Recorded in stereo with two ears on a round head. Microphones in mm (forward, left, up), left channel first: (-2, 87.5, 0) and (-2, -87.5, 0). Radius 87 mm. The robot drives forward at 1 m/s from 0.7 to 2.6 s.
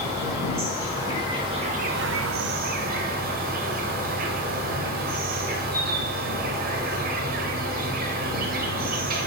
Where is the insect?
15° right (ahead or behind), 1.6 m; by 9.3 s 50° right (ahead or behind), 0.5 m.